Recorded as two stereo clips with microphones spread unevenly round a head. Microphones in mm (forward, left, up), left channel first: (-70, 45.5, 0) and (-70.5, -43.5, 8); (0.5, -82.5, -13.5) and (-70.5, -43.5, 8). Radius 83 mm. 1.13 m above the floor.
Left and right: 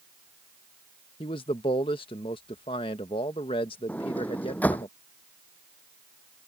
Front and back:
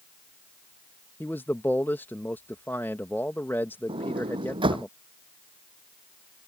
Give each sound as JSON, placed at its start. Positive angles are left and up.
{"t": 1.2, "sound": "a man speaking", "azimuth_deg": 45}
{"t": 3.9, "sound": "a sliding door", "azimuth_deg": 165}